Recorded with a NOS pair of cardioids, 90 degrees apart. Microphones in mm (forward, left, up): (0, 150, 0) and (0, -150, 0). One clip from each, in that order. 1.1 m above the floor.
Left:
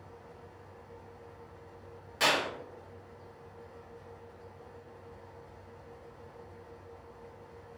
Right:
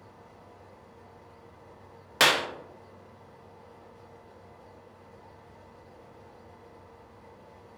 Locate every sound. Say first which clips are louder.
0.0 s a fan: left 1 dB; 60° right, 1.9 m
2.2 s a clap: right 5 dB; 65° right, 0.5 m